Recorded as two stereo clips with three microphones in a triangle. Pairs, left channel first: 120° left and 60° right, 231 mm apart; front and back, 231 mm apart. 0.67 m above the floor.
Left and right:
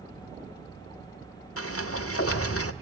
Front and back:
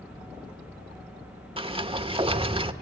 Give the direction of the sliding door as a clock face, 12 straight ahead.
8 o'clock.